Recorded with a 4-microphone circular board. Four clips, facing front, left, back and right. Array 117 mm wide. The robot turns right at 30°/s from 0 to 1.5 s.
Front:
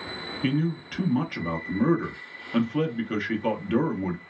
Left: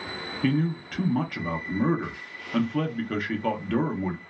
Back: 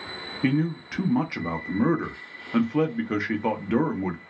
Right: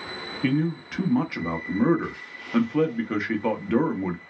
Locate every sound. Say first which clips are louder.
0.4 s a man speaking: right 1 dB, back 2 dB; 170° right, 0.6 m; by 4.2 s 135° right, 0.6 m